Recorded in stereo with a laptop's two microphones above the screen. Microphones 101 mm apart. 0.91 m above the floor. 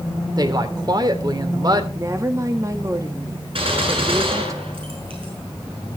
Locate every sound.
0.4 s a woman speaking: 40° right (ahead or behind), 3 m
1.9 s a woman speaking: 30° right (ahead or behind), 1.8 m
3.5 s a gunshot: 65° right (ahead or behind), 6.5 m